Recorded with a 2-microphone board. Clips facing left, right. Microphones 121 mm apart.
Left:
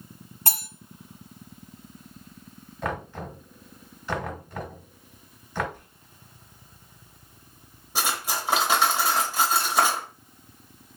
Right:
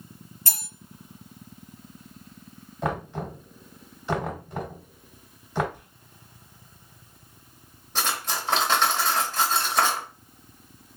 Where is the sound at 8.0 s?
10° left (ahead or behind), 1.1 m.